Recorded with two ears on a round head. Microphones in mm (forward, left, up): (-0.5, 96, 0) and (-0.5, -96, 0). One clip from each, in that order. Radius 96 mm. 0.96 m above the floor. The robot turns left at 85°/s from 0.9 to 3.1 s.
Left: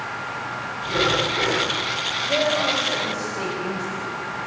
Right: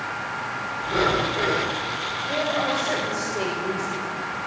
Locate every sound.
0.8 s breathing: 170° right, 3 m; by 1.8 s 115° left, 3 m
2.2 s a woman speaking: 35° left, 5 m; by 4.1 s 40° right, 5 m